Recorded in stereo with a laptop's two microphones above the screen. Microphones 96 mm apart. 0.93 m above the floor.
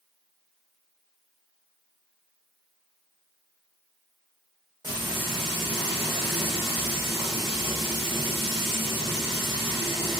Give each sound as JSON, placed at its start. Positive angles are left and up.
{"t": 4.8, "sound": "frying", "side_deg": -50, "distance_m": 2.0}